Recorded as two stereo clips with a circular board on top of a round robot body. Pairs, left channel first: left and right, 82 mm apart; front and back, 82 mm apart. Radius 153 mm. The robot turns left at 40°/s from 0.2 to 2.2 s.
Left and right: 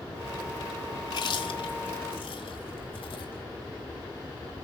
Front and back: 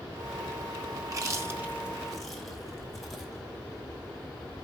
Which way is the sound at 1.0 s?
135° left.